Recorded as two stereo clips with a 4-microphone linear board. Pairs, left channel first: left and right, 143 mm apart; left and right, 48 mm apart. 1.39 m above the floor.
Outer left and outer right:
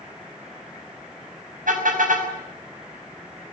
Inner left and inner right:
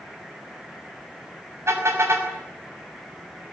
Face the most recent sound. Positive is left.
turn(degrees=-70)  # may be behind; listen again after turning